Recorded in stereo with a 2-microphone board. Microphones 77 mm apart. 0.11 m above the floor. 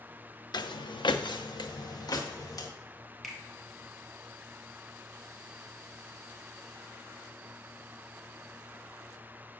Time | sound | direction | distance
0.5 | footsteps | 65° left (ahead or behind) | 0.5 m
3.2 | a finger snap | centre (ahead or behind) | 1.6 m